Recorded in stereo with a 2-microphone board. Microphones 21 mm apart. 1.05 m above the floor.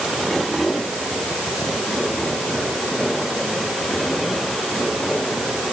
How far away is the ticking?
No ticking in this recording.